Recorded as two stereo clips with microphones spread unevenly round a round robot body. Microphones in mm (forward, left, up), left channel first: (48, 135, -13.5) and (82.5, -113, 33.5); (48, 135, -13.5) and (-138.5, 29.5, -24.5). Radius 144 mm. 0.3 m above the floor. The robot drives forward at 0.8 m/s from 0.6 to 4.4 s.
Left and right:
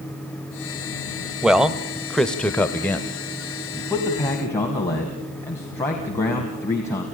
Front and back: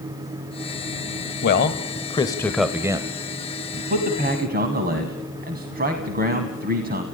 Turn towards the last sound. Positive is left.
turn(degrees=175)